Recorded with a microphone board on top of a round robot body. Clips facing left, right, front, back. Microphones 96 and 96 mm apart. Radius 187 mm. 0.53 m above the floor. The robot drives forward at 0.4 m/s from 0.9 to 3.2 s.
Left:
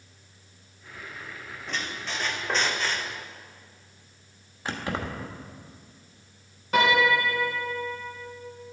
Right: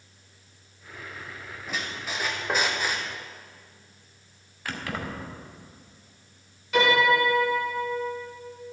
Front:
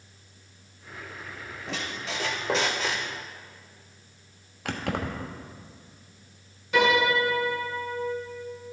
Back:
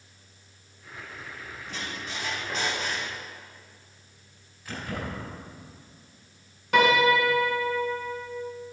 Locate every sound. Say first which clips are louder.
1.7 s a squeak: even, front 3 dB; 5° right, 1.0 m; by 3.1 s 15° right, 0.5 m
4.7 s keys jangling: left 2 dB, front 4 dB; 20° left, 1.1 m
6.7 s a piano: right 1 dB, back 2 dB; 145° left, 3 m